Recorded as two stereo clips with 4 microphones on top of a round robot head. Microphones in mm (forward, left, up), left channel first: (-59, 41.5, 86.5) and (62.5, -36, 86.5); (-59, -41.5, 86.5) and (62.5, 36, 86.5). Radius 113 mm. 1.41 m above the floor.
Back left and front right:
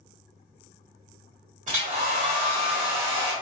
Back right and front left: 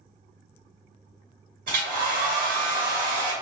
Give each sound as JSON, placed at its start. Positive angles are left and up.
{"t": 1.7, "sound": "a hair dryer", "azimuth_deg": 5, "distance_m": 1.5}